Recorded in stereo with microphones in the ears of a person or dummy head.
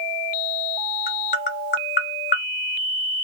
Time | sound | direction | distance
1.1 | tapping | 35° left (ahead or behind) | 0.9 m